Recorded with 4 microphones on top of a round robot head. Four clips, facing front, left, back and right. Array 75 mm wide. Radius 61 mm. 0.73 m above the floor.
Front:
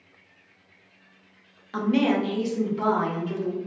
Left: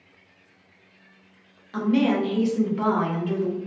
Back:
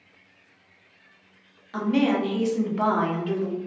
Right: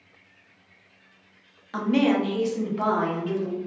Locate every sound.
1.7 s a woman speaking: 50° right, 0.8 m; by 3.6 s 160° left, 1.2 m